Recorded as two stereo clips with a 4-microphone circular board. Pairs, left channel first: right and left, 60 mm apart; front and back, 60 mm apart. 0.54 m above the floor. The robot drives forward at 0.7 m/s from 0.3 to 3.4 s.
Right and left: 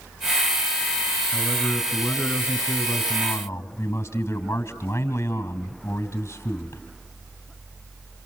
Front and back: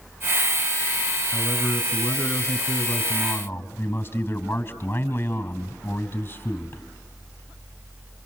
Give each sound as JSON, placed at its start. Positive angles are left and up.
{"t": 1.3, "sound": "a man speaking", "azimuth_deg": -30, "distance_m": 4.0}